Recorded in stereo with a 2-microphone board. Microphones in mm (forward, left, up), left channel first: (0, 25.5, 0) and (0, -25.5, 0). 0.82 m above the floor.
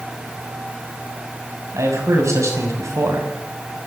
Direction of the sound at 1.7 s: 80° right.